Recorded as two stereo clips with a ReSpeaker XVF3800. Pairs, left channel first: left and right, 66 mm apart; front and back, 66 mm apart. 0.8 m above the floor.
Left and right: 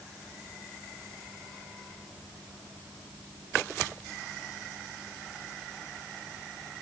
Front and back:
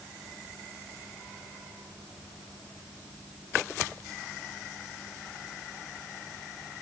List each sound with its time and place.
Only background noise.